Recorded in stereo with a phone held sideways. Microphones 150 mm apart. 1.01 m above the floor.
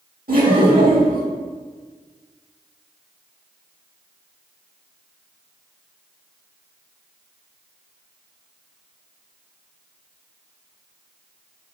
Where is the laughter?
75° right (ahead or behind), 2 m.